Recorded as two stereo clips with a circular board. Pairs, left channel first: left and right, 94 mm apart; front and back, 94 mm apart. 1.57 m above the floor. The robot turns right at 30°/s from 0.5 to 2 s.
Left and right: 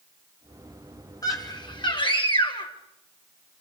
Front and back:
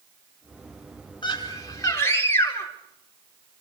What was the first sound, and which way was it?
A scream, 40° left.